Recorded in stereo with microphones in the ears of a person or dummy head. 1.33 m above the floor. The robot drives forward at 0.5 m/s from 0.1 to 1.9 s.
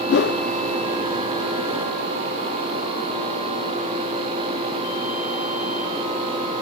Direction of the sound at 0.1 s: 50° left (ahead or behind).